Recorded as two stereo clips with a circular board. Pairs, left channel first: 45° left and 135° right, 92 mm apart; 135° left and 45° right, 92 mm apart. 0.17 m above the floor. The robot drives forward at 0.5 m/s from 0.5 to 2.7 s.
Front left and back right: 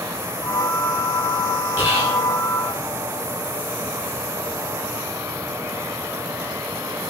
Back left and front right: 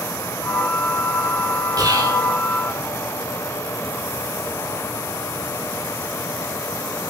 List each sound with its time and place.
1.8 s whispering: 75° right, 2 m; by 2.2 s 85° right, 2 m